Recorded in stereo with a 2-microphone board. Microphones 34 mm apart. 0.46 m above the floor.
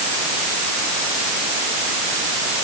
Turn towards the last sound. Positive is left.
No sound to turn to.